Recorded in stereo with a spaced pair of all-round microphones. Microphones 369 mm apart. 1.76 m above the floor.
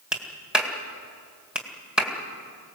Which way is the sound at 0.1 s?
Centre (ahead or behind).